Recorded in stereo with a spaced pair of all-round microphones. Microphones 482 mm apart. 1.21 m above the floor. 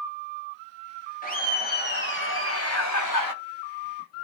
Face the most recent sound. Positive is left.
turn(degrees=45)  # may be behind; listen again after turning